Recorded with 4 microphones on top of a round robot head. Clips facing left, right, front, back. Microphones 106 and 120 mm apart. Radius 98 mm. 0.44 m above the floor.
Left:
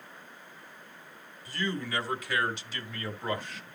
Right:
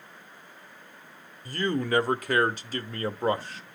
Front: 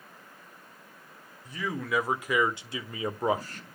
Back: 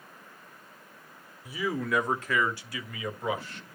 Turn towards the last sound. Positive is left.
turn(degrees=-40)